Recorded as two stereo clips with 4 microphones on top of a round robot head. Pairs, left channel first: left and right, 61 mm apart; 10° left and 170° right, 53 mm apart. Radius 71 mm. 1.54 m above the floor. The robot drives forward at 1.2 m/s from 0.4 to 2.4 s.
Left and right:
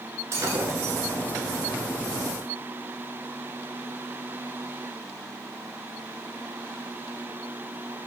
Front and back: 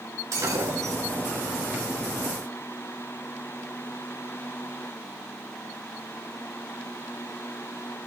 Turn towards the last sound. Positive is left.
turn(degrees=-145)